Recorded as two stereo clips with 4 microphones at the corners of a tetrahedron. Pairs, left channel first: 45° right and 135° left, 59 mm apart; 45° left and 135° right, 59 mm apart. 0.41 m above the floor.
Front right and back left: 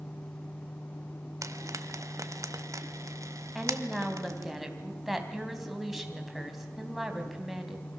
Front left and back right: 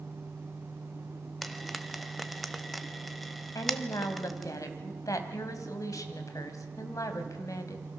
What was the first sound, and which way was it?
Frying, 135° left.